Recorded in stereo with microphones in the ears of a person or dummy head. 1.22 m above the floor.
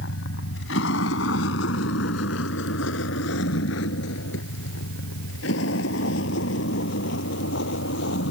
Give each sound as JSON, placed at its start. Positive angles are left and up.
{"t": 0.0, "sound": "a vehicle", "side_deg": 75}